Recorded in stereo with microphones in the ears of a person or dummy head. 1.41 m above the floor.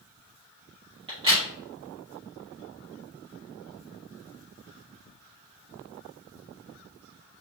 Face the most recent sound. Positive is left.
turn(degrees=-30)  # may be behind; listen again after turning